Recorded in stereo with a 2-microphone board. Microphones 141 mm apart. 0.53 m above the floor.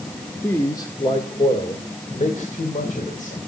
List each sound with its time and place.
0.4 s a man speaking: 15° left (ahead or behind), 1.7 m; by 3.4 s 70° left (ahead or behind), 3.5 m